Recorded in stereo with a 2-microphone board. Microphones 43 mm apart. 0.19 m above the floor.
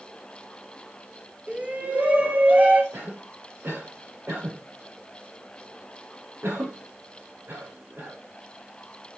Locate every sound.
1.5 s a shout: 30° right (ahead or behind), 3 m; by 2.8 s 35° right (ahead or behind), 4 m
2.9 s a cough: 65° right (ahead or behind), 6.5 m